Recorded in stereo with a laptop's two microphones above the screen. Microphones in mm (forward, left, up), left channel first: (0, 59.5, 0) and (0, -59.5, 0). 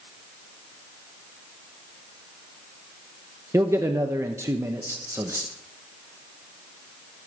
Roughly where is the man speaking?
Right.